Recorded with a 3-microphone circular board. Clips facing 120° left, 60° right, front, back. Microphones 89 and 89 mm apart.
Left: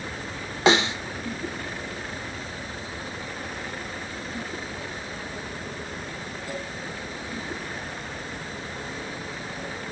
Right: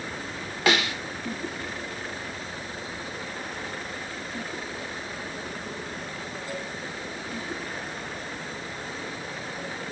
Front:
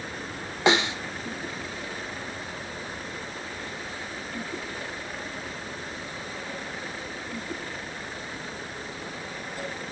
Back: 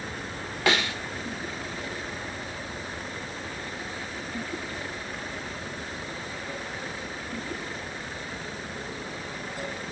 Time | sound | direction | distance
0.7 | a snare drum | 60° left | 0.5 m